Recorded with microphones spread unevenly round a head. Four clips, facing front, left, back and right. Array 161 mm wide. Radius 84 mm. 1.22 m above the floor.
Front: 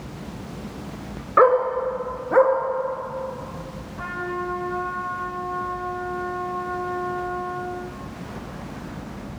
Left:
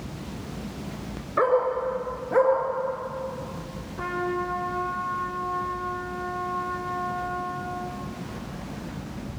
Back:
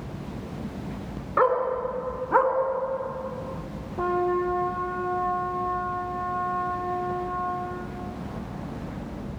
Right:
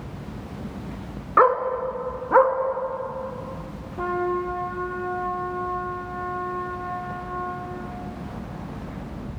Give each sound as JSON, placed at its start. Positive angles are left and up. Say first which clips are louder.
{"t": 1.4, "sound": "a dog barking", "louder": "right 3 dB, front 6 dB", "azimuth_deg": -60, "distance_m": 3.0}
{"t": 4.0, "sound": "a trumpet", "louder": "right 3 dB, back 5 dB", "azimuth_deg": -150, "distance_m": 4.5}